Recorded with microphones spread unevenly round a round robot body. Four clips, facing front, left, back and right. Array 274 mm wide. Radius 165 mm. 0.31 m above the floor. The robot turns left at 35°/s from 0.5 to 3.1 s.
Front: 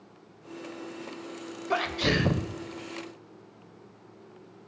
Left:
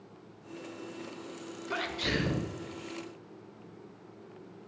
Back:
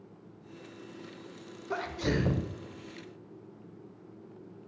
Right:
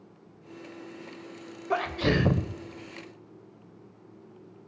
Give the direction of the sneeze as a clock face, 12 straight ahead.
2 o'clock.